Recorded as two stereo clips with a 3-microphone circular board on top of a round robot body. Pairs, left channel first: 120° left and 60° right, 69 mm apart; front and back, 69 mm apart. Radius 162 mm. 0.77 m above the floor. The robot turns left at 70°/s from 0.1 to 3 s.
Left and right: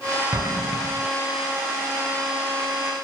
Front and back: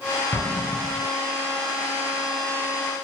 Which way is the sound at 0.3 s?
30° right.